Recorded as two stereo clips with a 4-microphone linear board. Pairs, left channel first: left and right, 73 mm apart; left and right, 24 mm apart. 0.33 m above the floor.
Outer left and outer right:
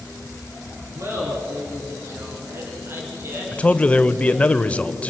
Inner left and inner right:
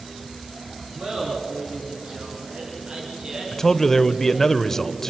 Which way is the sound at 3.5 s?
20° left (ahead or behind).